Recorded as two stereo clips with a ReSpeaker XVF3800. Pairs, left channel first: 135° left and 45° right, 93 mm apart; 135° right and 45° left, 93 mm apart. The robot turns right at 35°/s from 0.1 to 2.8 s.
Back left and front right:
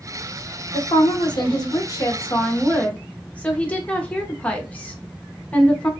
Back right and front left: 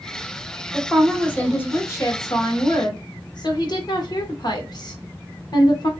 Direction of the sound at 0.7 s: 135° left.